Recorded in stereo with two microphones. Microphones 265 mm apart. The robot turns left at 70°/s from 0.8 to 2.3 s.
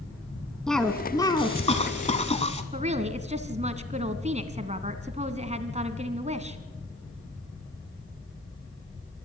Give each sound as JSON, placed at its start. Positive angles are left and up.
{"t": 0.7, "sound": "a cough", "side_deg": 0, "distance_m": 1.1}
{"t": 2.7, "sound": "a woman speaking", "side_deg": -25, "distance_m": 1.5}